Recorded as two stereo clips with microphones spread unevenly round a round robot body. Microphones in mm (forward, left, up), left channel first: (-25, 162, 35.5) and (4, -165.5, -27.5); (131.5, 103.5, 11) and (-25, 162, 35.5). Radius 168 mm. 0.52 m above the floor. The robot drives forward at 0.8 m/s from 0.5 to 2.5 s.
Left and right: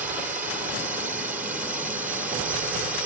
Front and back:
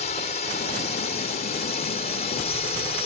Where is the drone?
10° right; by 3.1 s 15° right.